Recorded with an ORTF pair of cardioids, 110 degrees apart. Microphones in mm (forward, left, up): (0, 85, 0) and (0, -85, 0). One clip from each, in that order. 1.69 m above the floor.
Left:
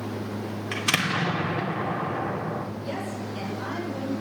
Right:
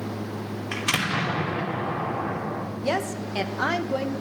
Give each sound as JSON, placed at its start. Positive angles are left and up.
{"t": 0.7, "sound": "an explosion", "azimuth_deg": 5, "distance_m": 3.0}
{"t": 2.8, "sound": "a woman speaking", "azimuth_deg": -70, "distance_m": 2.0}